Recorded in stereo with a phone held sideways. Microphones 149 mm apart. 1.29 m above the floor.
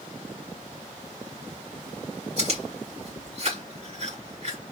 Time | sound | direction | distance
2.4 | chewing | 50° right (ahead or behind) | 3.5 m